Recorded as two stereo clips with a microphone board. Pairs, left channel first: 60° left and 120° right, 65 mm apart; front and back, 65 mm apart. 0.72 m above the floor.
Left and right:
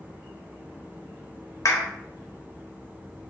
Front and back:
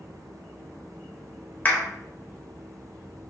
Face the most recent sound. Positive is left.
turn(degrees=60)